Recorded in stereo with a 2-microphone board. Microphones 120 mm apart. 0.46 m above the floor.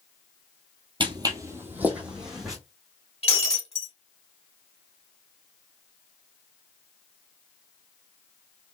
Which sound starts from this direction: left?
Breaking glass, at 3.2 s.